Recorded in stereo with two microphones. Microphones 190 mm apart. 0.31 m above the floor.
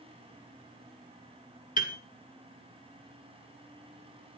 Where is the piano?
45° left (ahead or behind), 1.7 m.